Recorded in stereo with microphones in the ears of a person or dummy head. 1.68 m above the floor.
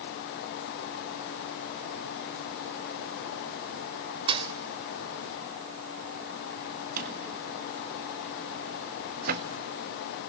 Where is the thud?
25° right (ahead or behind), 3 m.